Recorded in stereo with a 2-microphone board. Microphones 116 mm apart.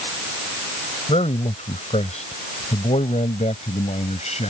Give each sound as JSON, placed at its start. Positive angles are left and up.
{"t": 1.1, "sound": "a man speaking", "side_deg": 70}